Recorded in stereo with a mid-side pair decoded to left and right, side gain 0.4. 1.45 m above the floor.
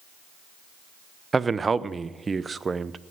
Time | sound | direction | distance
1.3 | a man speaking | 35° right | 0.7 m